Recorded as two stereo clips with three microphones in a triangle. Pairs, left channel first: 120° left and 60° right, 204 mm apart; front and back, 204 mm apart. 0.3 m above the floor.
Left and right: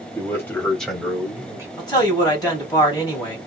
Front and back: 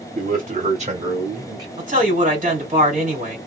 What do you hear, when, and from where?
0.1 s a man speaking: 170° right, 1.6 m; by 1.7 s 125° right, 1.4 m
1.8 s a man speaking: 175° left, 1.8 m